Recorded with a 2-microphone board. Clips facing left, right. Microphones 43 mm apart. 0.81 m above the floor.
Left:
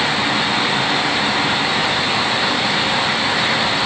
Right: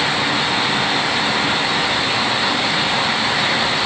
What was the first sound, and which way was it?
Only background noise.